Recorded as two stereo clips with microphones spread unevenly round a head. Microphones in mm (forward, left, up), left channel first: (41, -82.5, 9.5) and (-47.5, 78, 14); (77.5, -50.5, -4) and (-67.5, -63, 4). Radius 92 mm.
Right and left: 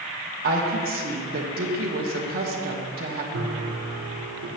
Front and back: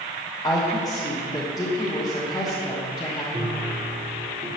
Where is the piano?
120° left, 1.5 m.